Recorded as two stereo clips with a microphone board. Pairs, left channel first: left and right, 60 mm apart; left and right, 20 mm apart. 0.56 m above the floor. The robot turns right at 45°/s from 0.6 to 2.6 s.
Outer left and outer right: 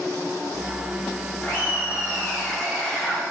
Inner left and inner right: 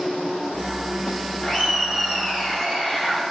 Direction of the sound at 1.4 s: 105° left.